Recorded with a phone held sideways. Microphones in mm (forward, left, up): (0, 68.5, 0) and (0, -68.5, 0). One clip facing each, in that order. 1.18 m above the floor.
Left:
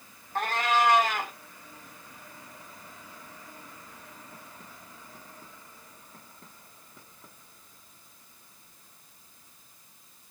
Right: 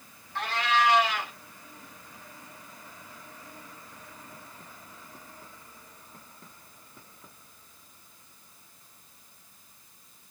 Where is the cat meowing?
45° left (ahead or behind), 1.1 m.